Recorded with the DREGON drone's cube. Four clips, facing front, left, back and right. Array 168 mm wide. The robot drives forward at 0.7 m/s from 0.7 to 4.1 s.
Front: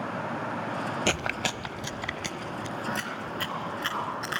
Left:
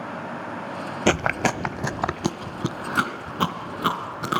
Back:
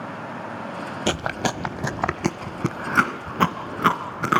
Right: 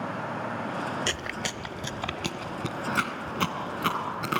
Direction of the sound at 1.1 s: 105° left.